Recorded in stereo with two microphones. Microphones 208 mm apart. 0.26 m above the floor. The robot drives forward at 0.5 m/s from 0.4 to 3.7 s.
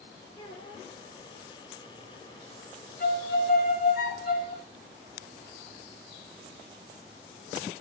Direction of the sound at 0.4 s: 20° left (ahead or behind).